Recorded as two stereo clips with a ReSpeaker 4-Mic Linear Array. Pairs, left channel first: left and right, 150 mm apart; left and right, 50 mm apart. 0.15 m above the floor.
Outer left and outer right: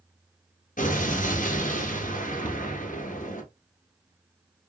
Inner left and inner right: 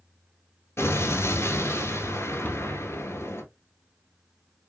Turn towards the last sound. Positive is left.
turn(degrees=30)  # may be behind; listen again after turning